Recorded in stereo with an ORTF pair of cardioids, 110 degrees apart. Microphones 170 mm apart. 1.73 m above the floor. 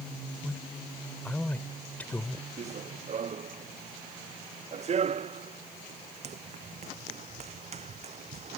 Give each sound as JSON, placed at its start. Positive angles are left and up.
{"t": 0.4, "sound": "a man speaking", "azimuth_deg": 10}
{"t": 2.6, "sound": "running footsteps", "azimuth_deg": -40}